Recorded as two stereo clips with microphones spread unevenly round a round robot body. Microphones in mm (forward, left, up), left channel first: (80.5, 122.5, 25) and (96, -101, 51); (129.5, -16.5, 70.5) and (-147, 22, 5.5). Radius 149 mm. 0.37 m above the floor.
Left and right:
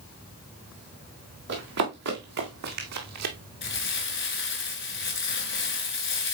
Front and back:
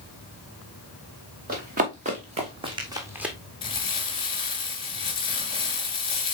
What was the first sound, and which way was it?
Running footsteps, 125° right.